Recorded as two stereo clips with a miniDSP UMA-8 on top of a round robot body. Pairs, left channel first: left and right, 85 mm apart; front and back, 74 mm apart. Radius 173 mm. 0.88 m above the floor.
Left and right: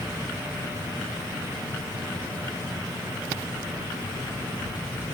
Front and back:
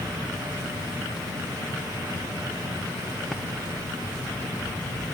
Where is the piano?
I don't hear a piano.